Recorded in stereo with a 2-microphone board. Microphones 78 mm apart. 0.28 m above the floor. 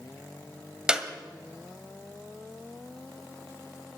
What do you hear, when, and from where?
0.9 s a clap: 10° right (ahead or behind), 1.5 m